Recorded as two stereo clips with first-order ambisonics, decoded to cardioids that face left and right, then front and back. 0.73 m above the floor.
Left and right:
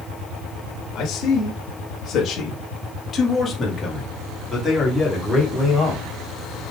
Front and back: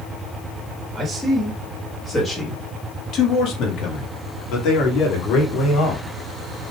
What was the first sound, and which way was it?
A man speaking, 105° left.